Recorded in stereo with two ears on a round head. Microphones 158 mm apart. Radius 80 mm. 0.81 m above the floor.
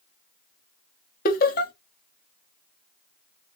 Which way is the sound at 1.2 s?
50° left (ahead or behind).